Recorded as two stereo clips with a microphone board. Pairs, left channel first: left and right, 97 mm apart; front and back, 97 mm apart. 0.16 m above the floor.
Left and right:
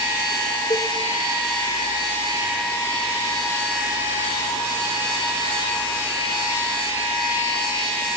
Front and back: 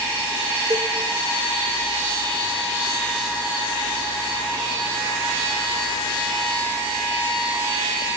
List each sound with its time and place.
0.7 s a cowbell: 125° left, 3 m